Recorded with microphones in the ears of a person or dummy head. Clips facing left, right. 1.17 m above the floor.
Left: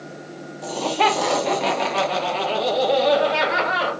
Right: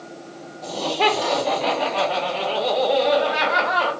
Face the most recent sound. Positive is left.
turn(degrees=30)  # may be behind; listen again after turning